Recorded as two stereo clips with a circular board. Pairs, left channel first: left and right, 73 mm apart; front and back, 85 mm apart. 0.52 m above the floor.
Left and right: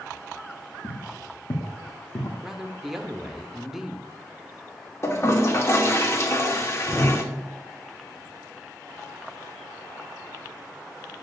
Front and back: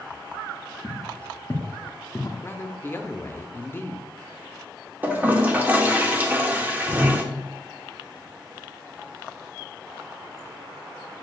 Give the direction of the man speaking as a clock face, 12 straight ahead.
12 o'clock.